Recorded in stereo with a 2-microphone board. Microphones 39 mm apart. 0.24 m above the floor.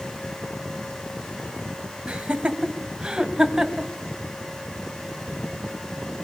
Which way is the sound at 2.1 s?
25° right (ahead or behind).